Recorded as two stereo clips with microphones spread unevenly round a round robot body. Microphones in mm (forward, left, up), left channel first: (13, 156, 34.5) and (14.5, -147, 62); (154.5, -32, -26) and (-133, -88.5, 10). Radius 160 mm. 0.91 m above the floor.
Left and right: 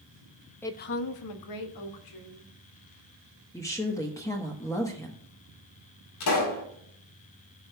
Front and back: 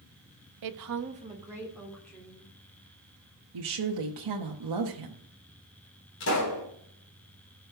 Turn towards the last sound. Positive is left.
turn(degrees=65)